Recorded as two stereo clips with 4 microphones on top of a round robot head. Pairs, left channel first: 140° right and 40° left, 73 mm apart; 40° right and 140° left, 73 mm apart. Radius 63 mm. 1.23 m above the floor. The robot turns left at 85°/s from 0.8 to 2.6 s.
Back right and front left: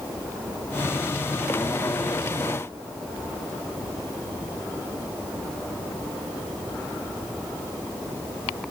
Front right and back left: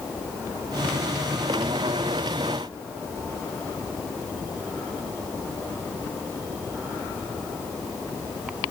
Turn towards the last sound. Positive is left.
No sound to turn to.